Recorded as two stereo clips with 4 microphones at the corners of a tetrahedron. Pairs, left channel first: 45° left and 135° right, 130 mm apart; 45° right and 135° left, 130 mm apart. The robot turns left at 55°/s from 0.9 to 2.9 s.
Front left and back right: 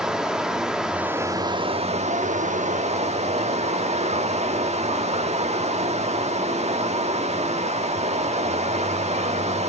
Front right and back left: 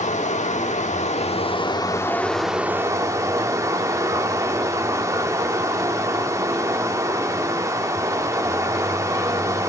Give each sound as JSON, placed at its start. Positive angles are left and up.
{"t": 0.0, "sound": "running water", "azimuth_deg": -50, "distance_m": 1.1}